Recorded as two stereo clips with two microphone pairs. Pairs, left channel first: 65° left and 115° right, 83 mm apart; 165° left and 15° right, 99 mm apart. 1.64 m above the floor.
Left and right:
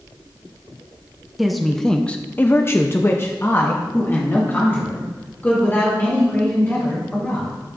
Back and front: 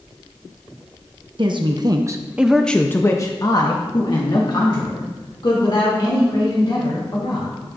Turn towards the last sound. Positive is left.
turn(degrees=130)